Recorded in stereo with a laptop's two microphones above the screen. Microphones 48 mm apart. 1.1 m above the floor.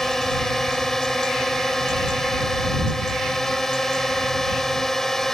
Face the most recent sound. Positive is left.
turn(degrees=10)  # may be behind; listen again after turning